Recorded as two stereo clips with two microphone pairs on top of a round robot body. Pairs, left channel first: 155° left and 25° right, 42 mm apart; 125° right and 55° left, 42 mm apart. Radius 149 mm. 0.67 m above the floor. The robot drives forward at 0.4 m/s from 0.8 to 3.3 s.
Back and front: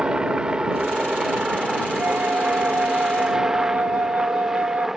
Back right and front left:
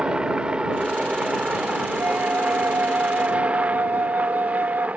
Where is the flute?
20° left.